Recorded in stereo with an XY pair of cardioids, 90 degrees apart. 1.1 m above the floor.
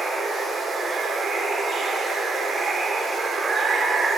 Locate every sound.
0.0 s running water: 45° right, 2.5 m